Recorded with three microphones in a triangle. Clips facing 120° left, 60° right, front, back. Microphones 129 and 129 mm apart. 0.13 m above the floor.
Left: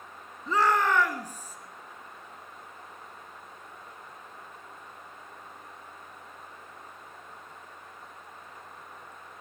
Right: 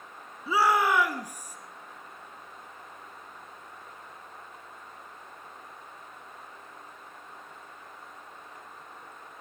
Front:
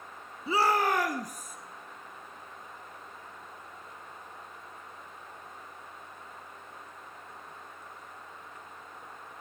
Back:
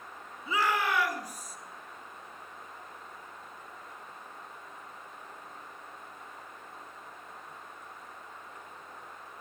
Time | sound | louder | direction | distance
0.5 | a shout | right 1 dB, front 3 dB | 15° left | 1.2 m